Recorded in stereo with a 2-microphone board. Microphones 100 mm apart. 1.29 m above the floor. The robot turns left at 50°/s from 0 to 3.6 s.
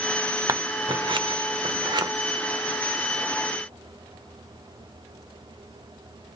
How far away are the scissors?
About 0.7 m.